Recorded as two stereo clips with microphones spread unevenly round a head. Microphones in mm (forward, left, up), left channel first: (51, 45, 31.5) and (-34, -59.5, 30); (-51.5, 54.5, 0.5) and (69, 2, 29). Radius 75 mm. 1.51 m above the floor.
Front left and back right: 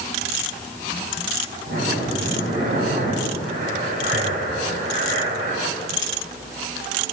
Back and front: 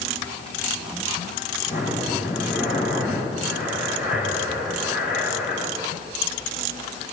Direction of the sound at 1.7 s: 160° right.